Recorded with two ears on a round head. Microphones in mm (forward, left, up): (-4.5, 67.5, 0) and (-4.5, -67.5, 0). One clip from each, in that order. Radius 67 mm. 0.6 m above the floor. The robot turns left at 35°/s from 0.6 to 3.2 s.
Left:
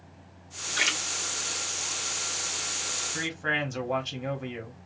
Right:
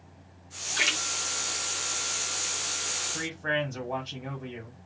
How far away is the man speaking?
About 1.3 m.